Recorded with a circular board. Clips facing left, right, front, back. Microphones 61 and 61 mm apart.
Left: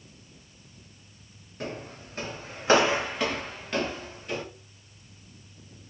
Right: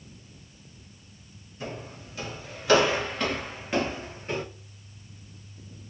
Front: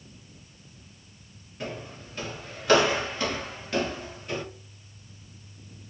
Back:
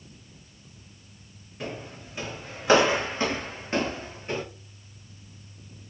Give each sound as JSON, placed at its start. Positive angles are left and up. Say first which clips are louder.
{"t": 1.6, "sound": "footsteps", "louder": "left 1 dB, even", "azimuth_deg": 95, "distance_m": 1.5}